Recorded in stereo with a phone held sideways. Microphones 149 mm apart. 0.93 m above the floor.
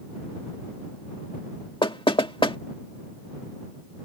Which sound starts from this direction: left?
Knocking, at 1.8 s.